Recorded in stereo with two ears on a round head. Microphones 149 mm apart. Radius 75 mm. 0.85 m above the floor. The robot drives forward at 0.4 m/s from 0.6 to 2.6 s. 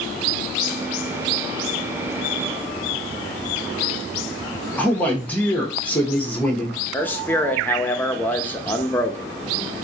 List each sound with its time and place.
4.8 s a man speaking: 10° left (ahead or behind), 1.0 m
6.9 s a man speaking: 10° left (ahead or behind), 0.7 m